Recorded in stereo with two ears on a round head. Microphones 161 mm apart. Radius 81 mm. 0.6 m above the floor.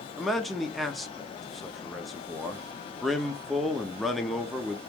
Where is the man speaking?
Centre (ahead or behind), 0.6 m.